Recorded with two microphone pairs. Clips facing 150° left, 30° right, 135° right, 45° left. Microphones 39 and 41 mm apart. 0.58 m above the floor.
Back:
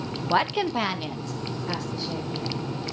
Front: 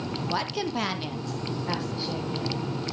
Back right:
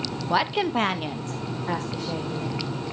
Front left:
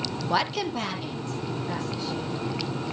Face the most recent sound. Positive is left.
turn(degrees=-105)